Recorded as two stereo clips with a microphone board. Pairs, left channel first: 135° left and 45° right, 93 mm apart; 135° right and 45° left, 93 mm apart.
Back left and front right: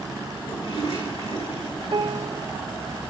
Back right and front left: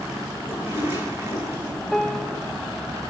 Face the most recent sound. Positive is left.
turn(degrees=-50)